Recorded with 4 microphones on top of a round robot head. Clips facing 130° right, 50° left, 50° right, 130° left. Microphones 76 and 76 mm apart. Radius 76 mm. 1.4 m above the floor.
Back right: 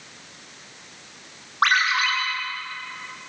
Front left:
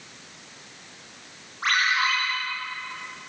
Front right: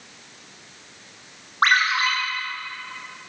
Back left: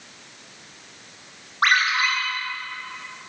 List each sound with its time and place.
1.6 s a ringtone: 110° right, 8.5 m